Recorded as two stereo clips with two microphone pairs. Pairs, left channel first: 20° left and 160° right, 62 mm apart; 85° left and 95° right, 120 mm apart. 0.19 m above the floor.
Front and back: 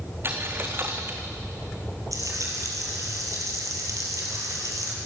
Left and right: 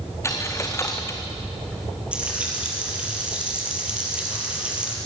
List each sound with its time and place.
0.2 s a dropped coin: 150° left, 2 m
2.1 s frying: 175° right, 4.5 m